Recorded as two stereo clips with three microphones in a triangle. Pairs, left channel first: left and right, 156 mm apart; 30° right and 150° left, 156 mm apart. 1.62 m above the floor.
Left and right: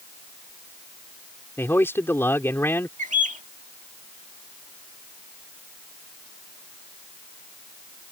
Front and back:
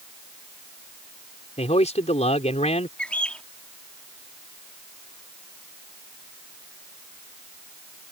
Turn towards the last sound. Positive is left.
turn(degrees=-110)